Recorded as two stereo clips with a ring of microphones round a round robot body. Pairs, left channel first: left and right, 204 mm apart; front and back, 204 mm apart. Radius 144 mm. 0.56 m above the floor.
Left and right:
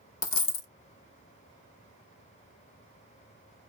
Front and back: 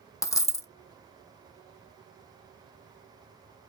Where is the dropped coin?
70° left, 0.6 m.